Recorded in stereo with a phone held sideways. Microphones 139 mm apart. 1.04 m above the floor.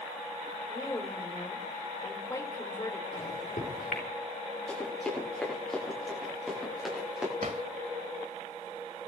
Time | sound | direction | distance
0.7 | a woman speaking | 25° left (ahead or behind) | 4 m
3.1 | a microwave | 75° left (ahead or behind) | 3.5 m
4.7 | running footsteps | 10° left (ahead or behind) | 9.5 m
7.4 | a drawer | 55° right (ahead or behind) | 1.4 m